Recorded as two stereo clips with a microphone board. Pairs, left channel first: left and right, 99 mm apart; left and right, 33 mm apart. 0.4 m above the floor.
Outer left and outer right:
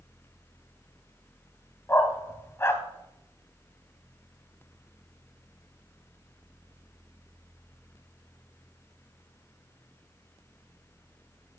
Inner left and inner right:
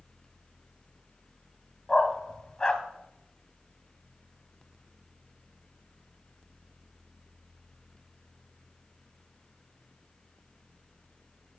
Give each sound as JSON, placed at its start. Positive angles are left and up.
{"t": 1.9, "sound": "a dog barking", "side_deg": 25, "distance_m": 1.1}